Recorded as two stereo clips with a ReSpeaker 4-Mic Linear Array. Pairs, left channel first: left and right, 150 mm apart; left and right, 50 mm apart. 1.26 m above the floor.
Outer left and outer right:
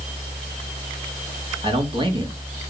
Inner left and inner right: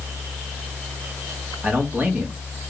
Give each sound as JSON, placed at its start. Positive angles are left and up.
{"t": 1.6, "sound": "a man speaking", "side_deg": -35, "distance_m": 2.0}